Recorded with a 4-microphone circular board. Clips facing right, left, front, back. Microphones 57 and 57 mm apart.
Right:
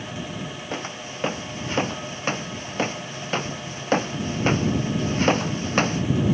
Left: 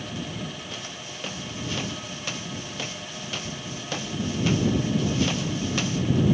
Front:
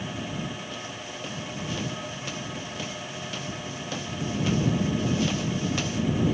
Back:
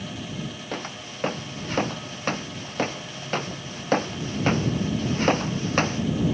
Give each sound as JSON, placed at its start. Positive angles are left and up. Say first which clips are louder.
{"t": 0.7, "sound": "footsteps", "louder": "right 6 dB, back 3 dB", "azimuth_deg": -140}